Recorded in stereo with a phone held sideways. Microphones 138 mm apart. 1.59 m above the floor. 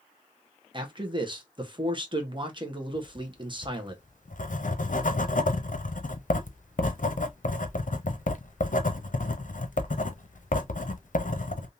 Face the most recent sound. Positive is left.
turn(degrees=65)  # may be behind; listen again after turning